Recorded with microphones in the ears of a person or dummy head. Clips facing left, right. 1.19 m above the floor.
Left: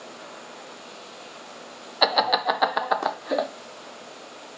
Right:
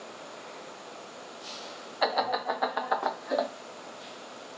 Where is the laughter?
60° left (ahead or behind), 0.6 m; by 3.5 s 40° left (ahead or behind), 0.7 m.